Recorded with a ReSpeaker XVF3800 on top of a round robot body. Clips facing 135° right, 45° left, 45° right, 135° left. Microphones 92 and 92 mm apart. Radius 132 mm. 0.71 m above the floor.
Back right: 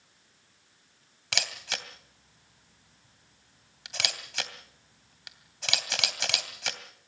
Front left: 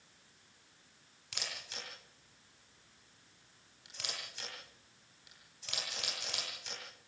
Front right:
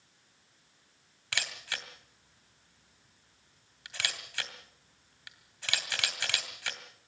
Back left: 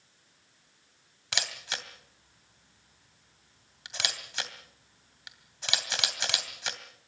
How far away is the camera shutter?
About 2.5 m.